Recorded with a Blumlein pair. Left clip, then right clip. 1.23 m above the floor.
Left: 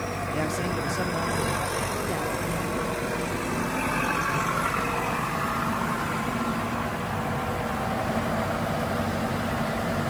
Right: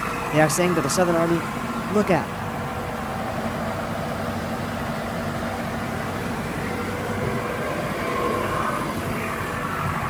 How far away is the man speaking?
About 0.5 m.